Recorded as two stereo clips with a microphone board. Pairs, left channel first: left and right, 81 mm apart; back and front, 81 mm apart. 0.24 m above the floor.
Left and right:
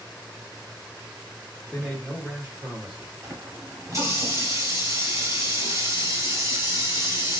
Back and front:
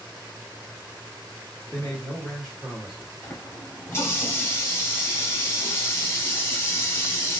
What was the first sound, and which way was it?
A man speaking, 155° left.